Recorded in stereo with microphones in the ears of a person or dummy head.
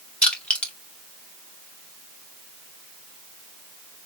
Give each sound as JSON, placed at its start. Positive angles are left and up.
{"t": 0.2, "sound": "crushing", "side_deg": 10, "distance_m": 1.8}